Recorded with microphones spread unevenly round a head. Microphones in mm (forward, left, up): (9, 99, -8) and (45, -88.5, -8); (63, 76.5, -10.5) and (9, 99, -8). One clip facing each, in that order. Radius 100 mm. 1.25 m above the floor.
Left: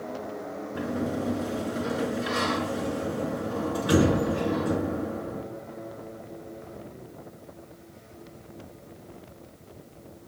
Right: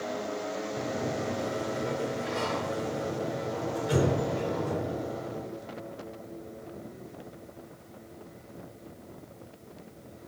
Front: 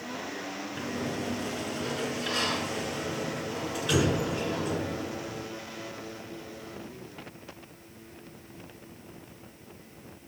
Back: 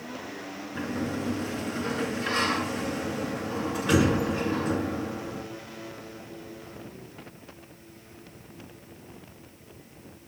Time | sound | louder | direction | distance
0.8 | a sliding door | left 5 dB, back 4 dB | 105° left | 5 m